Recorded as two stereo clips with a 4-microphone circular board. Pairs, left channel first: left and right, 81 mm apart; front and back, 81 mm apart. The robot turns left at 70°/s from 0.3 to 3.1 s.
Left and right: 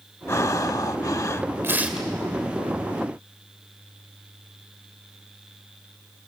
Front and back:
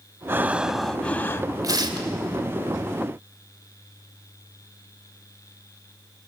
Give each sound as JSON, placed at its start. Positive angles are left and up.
{"t": 0.3, "sound": "breathing", "azimuth_deg": 125, "distance_m": 0.5}
{"t": 1.6, "sound": "tearing paper", "azimuth_deg": -145, "distance_m": 1.8}